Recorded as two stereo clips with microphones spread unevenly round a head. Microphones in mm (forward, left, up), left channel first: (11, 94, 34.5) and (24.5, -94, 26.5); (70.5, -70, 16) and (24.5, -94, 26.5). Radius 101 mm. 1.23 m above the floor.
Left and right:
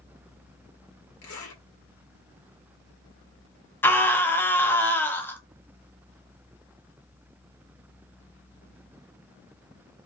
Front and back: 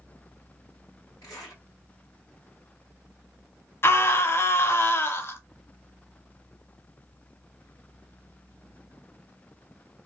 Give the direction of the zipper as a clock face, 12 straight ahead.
9 o'clock.